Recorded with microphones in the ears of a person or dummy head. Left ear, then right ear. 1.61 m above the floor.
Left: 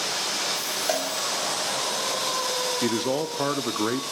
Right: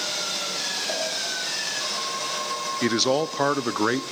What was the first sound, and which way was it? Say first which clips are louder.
A cowbell: left 4 dB; 50° left (ahead or behind).